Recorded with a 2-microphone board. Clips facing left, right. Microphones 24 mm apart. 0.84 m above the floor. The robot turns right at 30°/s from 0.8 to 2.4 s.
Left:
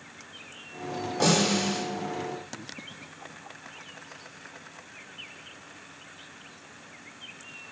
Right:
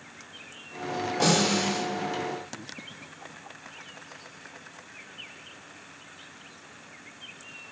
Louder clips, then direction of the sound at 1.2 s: Even; 15° right (ahead or behind).